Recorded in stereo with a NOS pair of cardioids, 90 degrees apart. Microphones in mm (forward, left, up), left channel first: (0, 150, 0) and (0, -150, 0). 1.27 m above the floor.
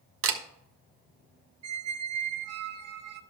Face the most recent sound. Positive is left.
turn(degrees=-60)